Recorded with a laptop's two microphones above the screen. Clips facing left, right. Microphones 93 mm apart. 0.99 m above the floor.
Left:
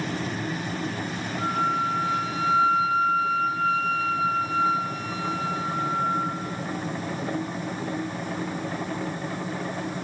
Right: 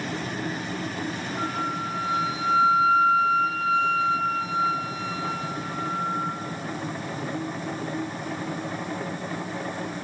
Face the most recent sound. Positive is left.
turn(degrees=-80)